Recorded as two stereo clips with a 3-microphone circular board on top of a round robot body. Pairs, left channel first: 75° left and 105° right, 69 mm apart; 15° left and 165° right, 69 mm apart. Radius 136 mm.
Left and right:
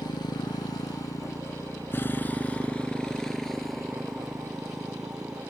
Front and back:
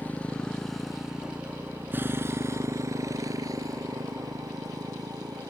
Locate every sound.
0.0 s a motorcycle: 80° left; by 5.5 s 175° left